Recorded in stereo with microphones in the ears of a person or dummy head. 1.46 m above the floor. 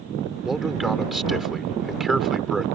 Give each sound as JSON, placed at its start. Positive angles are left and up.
{"t": 0.5, "sound": "a man speaking", "side_deg": 0}